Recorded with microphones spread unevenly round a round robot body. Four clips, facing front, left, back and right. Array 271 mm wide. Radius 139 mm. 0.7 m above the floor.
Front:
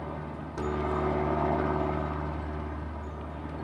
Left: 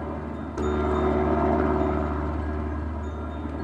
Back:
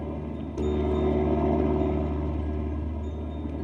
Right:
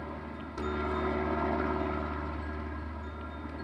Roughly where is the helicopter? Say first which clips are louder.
Left 8 dB, back 4 dB; behind left.